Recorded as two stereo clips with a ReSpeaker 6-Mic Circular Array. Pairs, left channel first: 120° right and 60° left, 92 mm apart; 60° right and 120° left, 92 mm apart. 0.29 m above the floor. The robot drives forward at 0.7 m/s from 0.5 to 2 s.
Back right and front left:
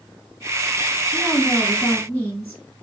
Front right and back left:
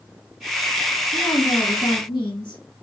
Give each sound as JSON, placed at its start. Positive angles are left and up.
{"t": 1.1, "sound": "a woman speaking", "azimuth_deg": -45, "distance_m": 3.0}